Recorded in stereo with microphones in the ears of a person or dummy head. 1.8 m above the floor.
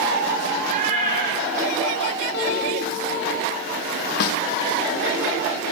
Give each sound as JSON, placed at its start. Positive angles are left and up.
{"t": 0.6, "sound": "a cat meowing", "side_deg": -40, "distance_m": 4.0}
{"t": 2.3, "sound": "a guitar", "side_deg": 65, "distance_m": 5.5}
{"t": 4.2, "sound": "a snare drum", "side_deg": 55, "distance_m": 0.6}